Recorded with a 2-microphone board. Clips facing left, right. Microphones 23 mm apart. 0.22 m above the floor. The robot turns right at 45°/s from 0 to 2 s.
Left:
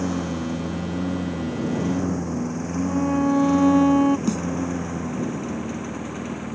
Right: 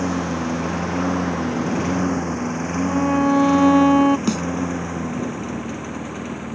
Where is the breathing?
No breathing in this recording.